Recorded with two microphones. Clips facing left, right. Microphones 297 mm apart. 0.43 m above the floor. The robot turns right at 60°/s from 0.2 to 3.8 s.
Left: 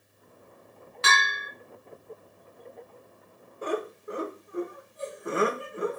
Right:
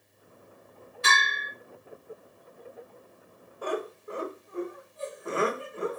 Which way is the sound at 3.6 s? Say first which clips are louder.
Left 2 dB; 25° left (ahead or behind).